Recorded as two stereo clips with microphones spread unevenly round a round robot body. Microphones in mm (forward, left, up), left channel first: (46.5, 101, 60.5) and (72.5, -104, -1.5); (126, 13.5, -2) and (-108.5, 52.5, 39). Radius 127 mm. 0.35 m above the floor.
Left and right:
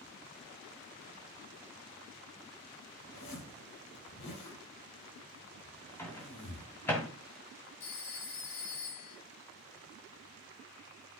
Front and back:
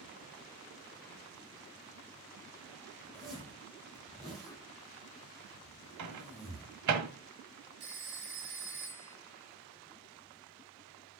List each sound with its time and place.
3.1 s a zipper: 80° left, 6 m
6.0 s a microwave: 175° right, 1.5 m
7.8 s a phone ringing: 125° left, 3.5 m